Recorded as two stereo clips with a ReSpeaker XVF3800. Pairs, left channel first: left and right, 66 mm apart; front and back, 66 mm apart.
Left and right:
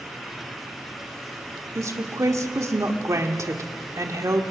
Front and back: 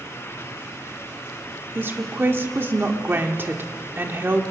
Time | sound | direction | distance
1.8 | a woman speaking | 125° right | 1.7 m